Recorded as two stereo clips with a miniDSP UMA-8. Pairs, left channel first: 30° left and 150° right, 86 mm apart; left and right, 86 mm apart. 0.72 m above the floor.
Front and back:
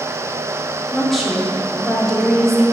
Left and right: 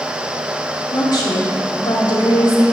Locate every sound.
0.9 s a woman speaking: 120° left, 1.7 m